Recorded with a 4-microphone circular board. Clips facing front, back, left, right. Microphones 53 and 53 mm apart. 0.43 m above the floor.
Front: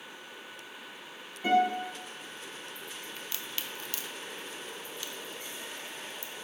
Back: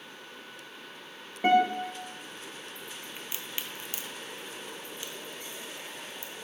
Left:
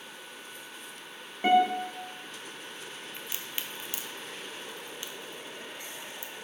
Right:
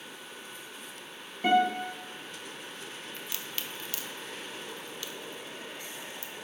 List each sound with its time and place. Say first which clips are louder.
1.4 s a guitar: back 2 dB, left 2 dB; 155° left, 2.5 m
3.2 s a crack: back 1 dB, left 1 dB; 135° left, 0.7 m